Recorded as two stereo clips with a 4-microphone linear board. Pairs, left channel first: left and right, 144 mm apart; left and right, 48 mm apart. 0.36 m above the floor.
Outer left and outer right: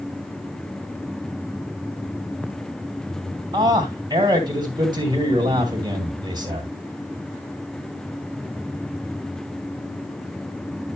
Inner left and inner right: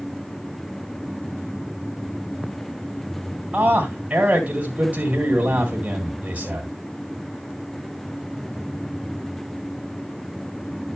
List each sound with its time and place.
3.5 s a man speaking: 25° right (ahead or behind), 2.5 m